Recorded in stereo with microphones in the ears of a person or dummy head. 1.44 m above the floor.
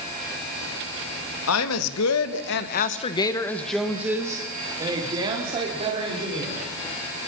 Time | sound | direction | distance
1.5 | a woman speaking | 85° left | 2.5 m